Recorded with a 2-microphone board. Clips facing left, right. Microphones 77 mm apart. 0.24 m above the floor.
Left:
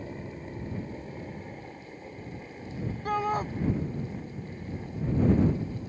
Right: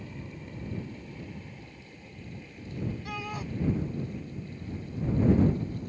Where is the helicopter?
35° left (ahead or behind); by 5.9 s 45° left (ahead or behind).